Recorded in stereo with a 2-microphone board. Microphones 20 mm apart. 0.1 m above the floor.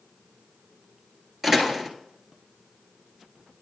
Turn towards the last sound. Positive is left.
turn(degrees=-15)  # may be behind; listen again after turning